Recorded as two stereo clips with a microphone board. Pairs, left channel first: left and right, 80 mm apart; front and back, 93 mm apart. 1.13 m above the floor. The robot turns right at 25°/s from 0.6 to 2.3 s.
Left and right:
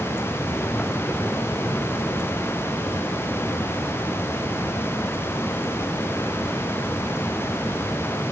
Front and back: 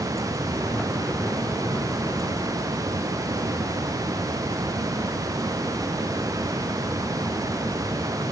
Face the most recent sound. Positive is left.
No sound to turn to.